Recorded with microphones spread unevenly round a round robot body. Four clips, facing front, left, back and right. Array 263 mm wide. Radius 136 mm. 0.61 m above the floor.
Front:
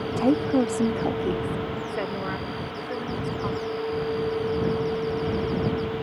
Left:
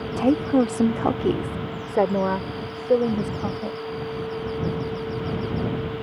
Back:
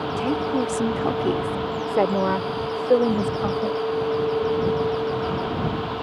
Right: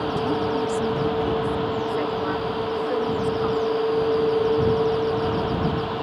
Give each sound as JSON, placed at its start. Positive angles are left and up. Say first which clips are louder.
{"t": 0.2, "sound": "a woman speaking", "louder": "left 7 dB, front 3 dB", "azimuth_deg": 65}